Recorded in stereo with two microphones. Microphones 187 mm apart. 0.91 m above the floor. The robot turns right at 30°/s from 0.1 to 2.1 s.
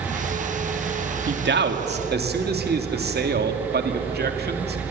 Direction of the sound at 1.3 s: 70° right (ahead or behind).